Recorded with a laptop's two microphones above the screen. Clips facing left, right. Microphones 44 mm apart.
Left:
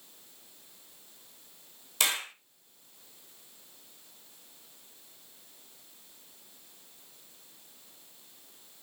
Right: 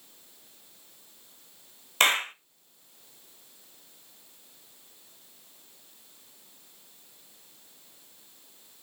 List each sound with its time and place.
2.0 s a clap: 40° right (ahead or behind), 0.7 m